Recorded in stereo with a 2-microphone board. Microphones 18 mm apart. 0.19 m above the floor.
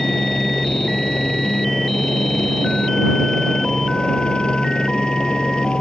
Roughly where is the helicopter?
Left.